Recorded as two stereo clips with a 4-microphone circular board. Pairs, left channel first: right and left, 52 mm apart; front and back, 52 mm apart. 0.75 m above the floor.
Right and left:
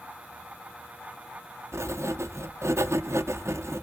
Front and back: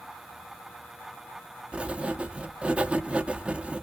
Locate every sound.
1.7 s writing: 110° left, 0.6 m